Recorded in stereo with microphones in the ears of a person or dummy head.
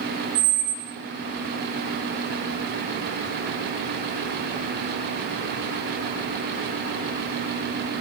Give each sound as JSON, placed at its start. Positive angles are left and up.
{"t": 0.3, "sound": "a squeak", "side_deg": -40, "distance_m": 1.1}